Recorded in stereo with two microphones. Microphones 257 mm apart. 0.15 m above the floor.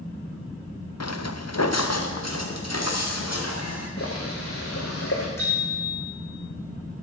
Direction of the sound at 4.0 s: 60° left (ahead or behind).